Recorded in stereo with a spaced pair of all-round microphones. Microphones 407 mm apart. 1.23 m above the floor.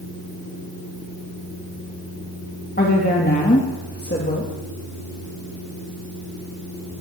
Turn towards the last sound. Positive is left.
turn(degrees=20)  # may be behind; listen again after turning